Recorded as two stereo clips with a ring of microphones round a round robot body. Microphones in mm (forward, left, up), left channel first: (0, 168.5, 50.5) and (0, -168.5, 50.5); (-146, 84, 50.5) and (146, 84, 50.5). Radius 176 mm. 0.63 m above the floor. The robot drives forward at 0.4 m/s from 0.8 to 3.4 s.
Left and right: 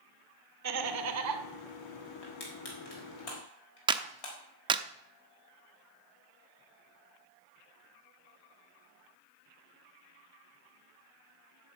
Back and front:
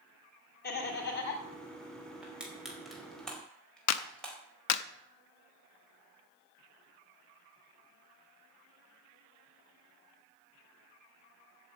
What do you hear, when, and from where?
0.6 s laughter: 125° right, 2 m; by 1.4 s 130° right, 2 m
2.2 s crushing: 85° left, 4 m; by 4.4 s 95° left, 4 m
3.9 s a clap: 165° right, 0.7 m